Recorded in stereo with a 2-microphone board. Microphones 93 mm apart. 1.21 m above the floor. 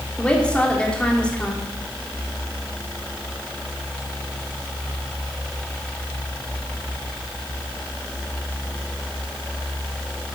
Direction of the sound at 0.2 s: 10° left (ahead or behind).